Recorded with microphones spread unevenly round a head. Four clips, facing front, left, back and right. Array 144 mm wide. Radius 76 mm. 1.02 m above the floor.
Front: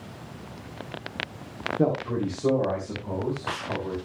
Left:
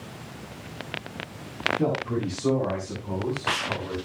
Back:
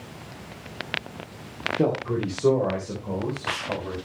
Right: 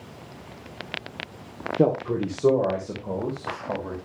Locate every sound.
1.8 s a man speaking: 105° right, 2.5 m; by 4.0 s 110° right, 5.5 m